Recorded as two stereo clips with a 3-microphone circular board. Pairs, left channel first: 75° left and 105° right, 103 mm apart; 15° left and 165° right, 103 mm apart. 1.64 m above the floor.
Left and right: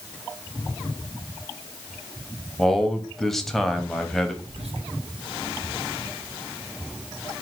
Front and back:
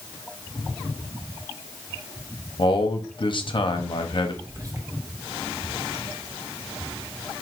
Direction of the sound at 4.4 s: 110° right.